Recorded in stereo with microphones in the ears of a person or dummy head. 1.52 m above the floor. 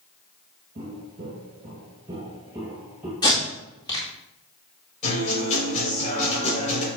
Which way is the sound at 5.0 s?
40° left (ahead or behind).